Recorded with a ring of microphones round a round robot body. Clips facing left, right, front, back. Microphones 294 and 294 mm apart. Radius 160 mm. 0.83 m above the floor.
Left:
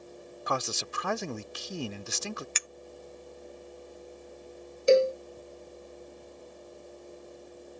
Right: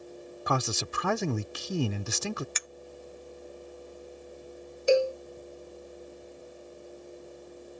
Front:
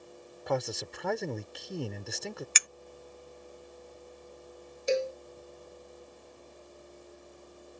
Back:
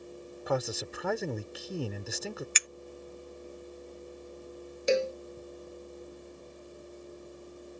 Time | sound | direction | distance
0.5 | a man speaking | 90° right | ?
2.5 | a clink | 30° left | ?
4.9 | a cowbell | 155° left | ?